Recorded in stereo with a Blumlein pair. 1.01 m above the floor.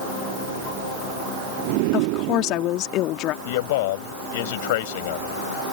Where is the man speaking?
50° left.